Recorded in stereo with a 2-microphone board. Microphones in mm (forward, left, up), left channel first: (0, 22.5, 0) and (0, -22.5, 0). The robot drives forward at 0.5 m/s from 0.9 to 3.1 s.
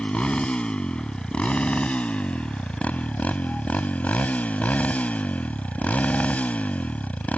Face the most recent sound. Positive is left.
turn(degrees=35)  # may be behind; listen again after turning